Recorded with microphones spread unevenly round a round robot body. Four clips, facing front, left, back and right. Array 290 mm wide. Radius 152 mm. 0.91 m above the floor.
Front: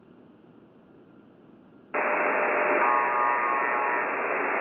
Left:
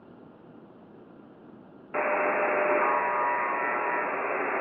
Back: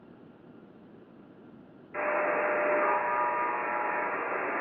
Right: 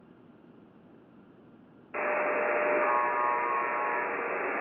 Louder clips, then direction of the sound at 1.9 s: Left 3 dB, front 3 dB; 55° left.